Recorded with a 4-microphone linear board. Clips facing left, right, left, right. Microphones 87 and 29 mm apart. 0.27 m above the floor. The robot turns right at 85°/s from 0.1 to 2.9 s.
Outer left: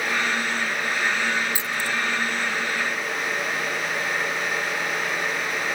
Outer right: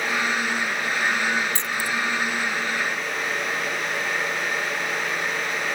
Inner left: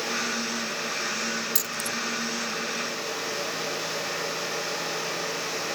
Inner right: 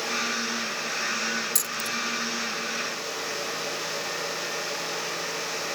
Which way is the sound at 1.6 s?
10° left (ahead or behind).